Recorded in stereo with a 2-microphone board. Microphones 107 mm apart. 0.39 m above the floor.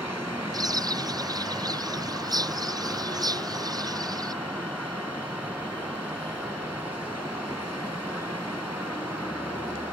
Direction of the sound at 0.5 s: 40° right (ahead or behind).